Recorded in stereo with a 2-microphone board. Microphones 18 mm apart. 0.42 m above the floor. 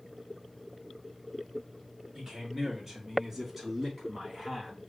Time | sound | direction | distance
2.1 | a man speaking | 20° right (ahead or behind) | 3.5 m